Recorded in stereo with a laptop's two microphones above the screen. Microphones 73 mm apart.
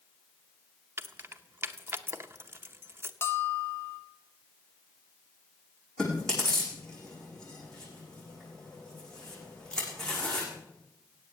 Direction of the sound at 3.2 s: 30° left (ahead or behind).